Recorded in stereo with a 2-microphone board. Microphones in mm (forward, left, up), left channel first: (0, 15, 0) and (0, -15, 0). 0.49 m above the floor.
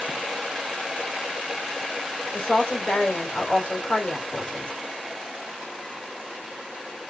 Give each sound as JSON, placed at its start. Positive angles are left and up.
{"t": 2.3, "sound": "a woman speaking", "side_deg": 45, "distance_m": 1.9}